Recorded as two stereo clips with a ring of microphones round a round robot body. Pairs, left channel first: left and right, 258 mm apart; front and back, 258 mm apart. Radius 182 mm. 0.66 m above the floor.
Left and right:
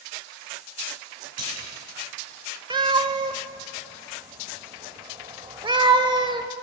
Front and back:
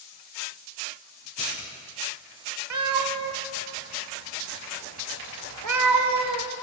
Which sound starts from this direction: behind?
A cat meowing, at 2.7 s.